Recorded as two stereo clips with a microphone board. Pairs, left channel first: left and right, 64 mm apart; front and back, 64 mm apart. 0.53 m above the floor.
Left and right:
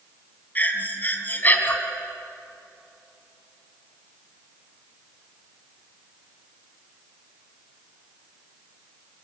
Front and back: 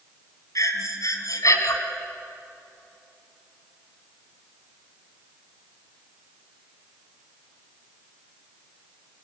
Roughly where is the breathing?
Ahead left.